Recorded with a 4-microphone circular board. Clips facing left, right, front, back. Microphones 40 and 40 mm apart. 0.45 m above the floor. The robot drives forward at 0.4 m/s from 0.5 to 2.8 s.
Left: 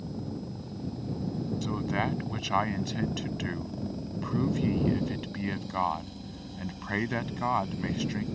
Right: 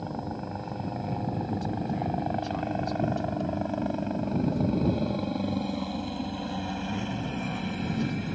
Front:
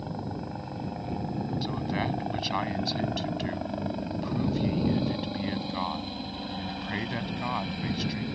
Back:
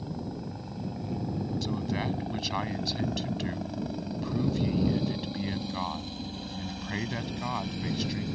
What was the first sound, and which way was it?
A helicopter, 65° right.